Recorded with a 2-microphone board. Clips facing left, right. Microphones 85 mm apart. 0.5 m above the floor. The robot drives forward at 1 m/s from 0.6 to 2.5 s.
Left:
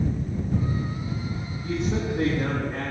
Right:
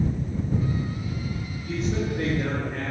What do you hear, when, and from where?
1.6 s a man speaking: 65° left (ahead or behind), 4 m; by 2.9 s 75° left (ahead or behind), 3.5 m